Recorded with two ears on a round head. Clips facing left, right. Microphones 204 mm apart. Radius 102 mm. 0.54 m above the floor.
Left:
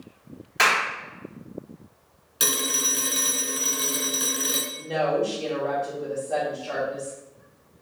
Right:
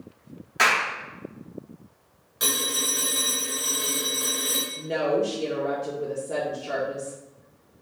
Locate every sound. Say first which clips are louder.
0.6 s a clap: even; centre (ahead or behind), 2 m
2.4 s a phone ringing: left 1 dB; 45° left (ahead or behind), 1.6 m
4.8 s a woman speaking: even; 35° right (ahead or behind), 0.9 m